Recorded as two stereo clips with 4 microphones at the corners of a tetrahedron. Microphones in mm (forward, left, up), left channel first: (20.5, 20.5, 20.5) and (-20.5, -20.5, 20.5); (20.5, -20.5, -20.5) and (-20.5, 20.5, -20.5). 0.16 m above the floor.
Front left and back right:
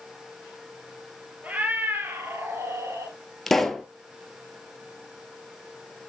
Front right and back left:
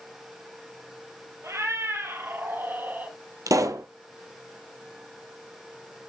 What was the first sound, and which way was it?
A cat meowing, 160° left.